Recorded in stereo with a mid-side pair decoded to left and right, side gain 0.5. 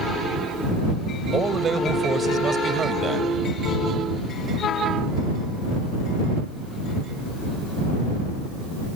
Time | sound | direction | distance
1.3 | a man speaking | 40° right | ?